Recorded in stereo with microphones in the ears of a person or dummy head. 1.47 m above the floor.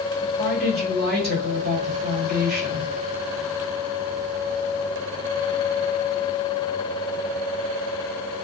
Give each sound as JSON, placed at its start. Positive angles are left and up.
{"t": 0.2, "sound": "a woman speaking", "side_deg": -50, "distance_m": 1.5}